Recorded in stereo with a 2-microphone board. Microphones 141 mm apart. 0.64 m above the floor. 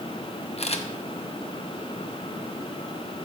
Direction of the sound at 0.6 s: 45° left (ahead or behind).